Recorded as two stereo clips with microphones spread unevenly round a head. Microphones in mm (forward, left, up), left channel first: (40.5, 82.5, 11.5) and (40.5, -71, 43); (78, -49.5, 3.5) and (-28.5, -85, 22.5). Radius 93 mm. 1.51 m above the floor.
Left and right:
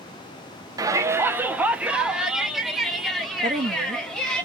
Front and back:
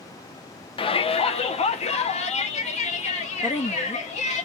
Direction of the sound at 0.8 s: 25° right.